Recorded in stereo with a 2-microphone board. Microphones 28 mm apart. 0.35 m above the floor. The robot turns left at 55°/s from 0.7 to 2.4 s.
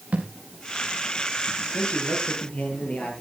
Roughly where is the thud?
Right.